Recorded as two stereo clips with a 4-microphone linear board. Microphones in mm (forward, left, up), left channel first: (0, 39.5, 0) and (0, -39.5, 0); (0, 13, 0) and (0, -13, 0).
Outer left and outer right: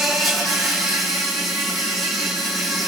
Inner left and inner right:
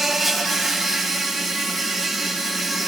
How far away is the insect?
About 4 m.